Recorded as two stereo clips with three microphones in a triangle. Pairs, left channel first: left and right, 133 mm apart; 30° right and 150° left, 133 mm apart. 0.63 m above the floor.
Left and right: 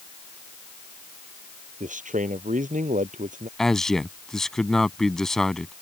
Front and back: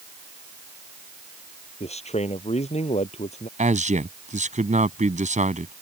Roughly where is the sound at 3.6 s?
Behind.